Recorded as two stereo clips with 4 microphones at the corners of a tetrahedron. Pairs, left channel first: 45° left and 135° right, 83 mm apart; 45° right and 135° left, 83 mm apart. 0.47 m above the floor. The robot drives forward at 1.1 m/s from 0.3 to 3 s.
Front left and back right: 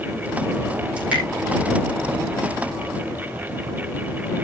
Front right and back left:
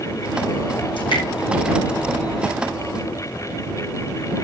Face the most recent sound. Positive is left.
turn(degrees=-75)